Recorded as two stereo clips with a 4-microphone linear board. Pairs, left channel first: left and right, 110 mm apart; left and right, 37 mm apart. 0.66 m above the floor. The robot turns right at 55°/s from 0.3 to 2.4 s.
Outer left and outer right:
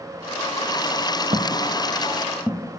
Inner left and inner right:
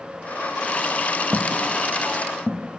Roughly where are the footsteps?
Right.